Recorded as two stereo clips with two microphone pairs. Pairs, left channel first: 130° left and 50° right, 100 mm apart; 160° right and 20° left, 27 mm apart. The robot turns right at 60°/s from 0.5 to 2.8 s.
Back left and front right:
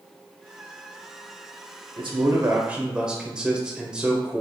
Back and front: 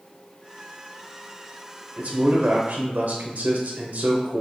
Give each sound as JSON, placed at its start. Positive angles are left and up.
{"t": 2.0, "sound": "a man speaking", "azimuth_deg": -20, "distance_m": 0.9}